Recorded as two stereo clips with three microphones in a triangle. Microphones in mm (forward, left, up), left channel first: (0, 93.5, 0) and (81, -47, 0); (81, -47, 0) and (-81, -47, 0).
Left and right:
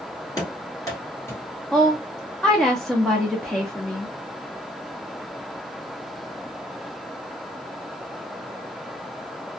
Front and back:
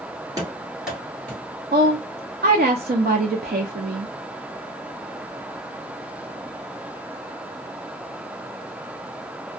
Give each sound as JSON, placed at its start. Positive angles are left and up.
{"t": 0.4, "sound": "running footsteps", "azimuth_deg": 150, "distance_m": 1.5}
{"t": 1.7, "sound": "a woman speaking", "azimuth_deg": -155, "distance_m": 0.5}